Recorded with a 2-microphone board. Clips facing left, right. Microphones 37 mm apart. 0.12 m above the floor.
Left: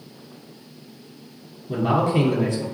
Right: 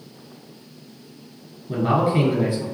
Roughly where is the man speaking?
Centre.